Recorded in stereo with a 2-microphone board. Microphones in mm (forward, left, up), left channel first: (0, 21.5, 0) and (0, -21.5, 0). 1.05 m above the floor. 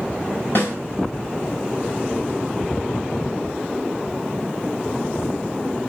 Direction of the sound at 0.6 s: 60° left (ahead or behind).